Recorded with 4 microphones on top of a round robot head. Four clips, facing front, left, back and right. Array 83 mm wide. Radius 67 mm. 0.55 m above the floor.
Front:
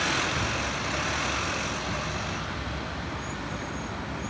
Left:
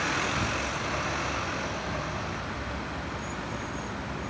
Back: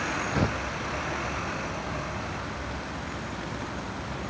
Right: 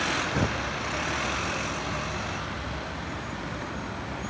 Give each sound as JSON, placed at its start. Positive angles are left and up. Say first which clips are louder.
{"t": 0.3, "sound": "tearing paper", "louder": "right 2 dB, back 2 dB", "azimuth_deg": -140}